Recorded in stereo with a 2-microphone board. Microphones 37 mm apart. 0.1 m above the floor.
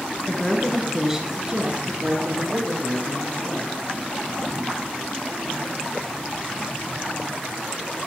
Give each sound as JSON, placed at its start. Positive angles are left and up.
{"t": 0.3, "sound": "a woman speaking", "side_deg": 20, "distance_m": 1.7}